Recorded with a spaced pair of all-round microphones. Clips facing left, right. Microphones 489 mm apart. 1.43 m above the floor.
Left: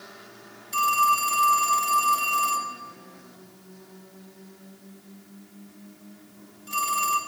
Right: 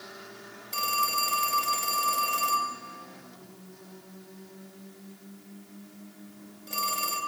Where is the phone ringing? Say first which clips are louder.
Left 6 dB; 30° left (ahead or behind), 2 m.